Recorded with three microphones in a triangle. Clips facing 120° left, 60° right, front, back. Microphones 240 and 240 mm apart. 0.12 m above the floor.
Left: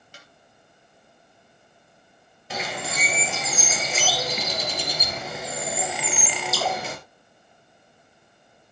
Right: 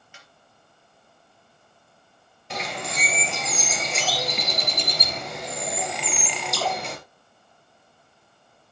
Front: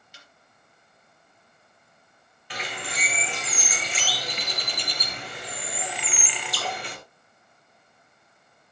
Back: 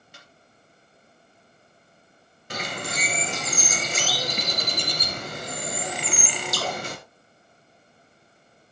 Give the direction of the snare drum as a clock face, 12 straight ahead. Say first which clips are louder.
Left 3 dB, back 4 dB; 7 o'clock.